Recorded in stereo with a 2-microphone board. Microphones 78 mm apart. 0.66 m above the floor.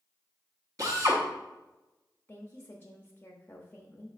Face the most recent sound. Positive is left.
turn(degrees=25)  # may be behind; listen again after turning